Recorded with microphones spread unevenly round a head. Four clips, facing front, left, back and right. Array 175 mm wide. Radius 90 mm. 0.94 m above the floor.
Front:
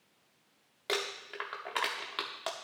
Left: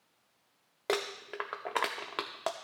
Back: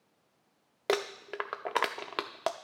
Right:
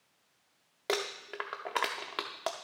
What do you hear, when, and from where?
0.9 s crumpling: 170° left, 0.5 m